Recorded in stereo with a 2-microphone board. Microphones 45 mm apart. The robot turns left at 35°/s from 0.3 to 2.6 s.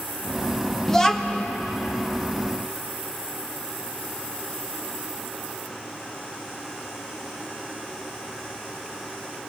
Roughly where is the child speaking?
Centre.